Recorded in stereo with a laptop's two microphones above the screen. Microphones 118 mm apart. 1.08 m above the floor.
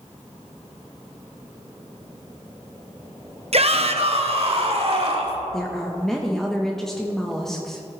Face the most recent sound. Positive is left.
turn(degrees=5)  # may be behind; listen again after turning